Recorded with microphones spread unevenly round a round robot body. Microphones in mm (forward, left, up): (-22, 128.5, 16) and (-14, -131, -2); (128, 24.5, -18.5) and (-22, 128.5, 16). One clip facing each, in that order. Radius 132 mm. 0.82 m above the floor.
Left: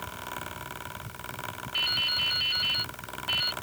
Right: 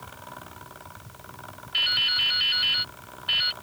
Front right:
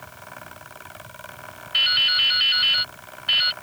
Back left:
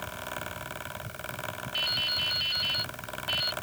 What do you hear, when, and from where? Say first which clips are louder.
1.7 s dripping: left 2 dB, front right 2 dB; 25° right